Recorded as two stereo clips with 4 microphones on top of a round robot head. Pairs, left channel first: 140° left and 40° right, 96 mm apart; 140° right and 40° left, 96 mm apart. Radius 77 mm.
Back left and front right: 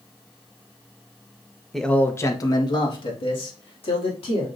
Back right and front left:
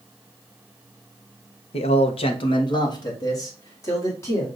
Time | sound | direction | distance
1.7 | a man speaking | 130° right | 0.7 m